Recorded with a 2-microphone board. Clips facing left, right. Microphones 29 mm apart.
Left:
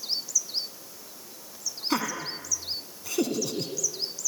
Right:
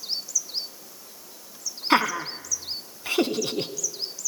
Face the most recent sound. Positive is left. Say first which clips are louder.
# right 8 dB
turn(degrees=-45)  # may be behind; listen again after turning